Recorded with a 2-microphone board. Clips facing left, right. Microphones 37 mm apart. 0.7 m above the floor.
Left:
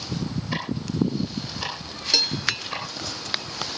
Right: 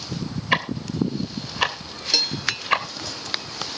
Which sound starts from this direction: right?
Ticking, at 0.5 s.